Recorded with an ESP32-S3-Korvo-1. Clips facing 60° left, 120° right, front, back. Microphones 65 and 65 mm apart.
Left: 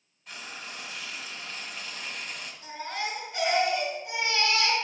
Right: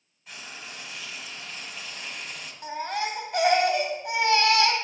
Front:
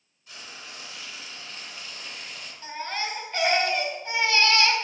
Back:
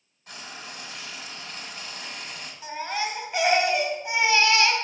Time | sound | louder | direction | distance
0.3 | frying | left 1 dB, back 3 dB | 150° left | 1.9 m
2.6 | a baby crying | right 5 dB, back 2 dB | 105° right | 2 m